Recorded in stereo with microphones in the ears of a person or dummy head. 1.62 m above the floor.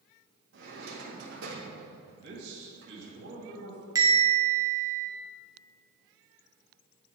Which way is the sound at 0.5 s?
70° right (ahead or behind).